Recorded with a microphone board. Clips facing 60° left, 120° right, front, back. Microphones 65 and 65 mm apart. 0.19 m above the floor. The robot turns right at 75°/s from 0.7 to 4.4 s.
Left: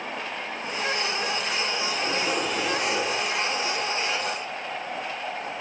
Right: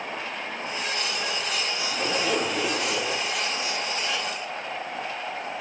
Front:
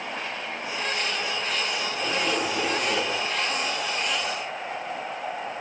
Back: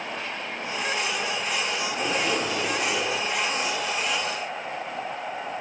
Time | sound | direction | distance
1.9 | a zipper | 140° right | 9 m